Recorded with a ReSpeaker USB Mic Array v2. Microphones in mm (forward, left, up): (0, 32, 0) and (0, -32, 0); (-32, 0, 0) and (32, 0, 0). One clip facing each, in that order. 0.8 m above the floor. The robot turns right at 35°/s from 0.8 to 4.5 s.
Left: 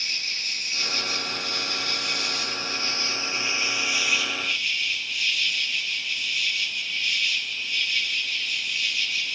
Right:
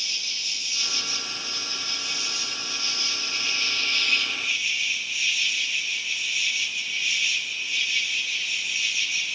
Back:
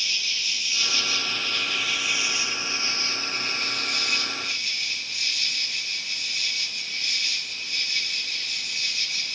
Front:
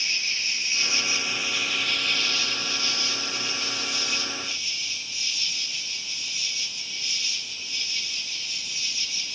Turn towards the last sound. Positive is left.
turn(degrees=-175)